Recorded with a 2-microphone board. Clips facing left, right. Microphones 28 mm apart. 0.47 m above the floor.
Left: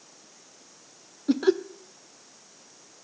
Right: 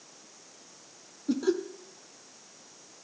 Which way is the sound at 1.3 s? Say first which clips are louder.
Left 5 dB; 40° left (ahead or behind).